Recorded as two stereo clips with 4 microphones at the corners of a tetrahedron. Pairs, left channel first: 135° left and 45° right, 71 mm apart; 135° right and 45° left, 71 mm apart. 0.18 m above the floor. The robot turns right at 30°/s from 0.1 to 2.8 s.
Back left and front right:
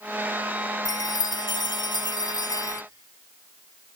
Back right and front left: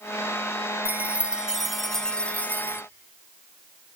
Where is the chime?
110° left, 0.6 m; by 2.8 s 165° left, 0.6 m.